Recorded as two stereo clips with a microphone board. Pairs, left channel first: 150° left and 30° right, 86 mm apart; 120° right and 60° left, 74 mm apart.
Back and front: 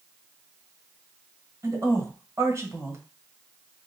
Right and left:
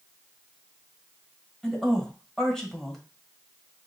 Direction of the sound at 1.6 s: 40° right.